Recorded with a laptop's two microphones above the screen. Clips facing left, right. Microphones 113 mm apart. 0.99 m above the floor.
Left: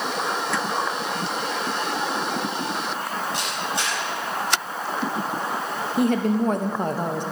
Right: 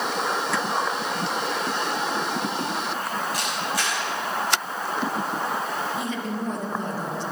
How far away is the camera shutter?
About 6.5 m.